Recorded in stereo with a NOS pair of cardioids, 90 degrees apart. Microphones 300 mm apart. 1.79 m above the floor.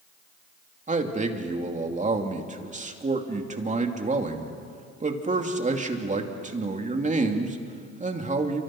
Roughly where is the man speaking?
Ahead right.